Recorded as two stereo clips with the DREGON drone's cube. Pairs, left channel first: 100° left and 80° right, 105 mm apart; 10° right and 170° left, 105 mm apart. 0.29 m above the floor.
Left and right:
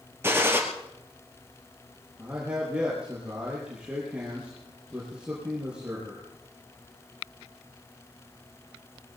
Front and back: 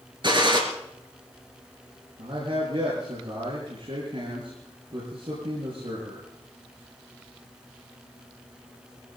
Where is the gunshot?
145° right, 3.5 m.